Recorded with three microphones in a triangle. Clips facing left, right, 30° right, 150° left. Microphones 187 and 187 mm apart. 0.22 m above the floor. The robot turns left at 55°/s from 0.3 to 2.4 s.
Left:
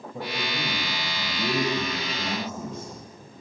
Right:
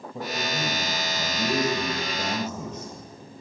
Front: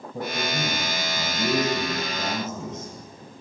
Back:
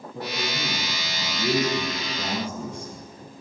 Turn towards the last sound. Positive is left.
turn(degrees=-100)